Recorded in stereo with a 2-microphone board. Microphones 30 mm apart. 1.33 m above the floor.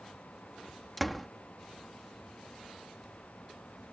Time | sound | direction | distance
1.0 | a door slam | centre (ahead or behind) | ?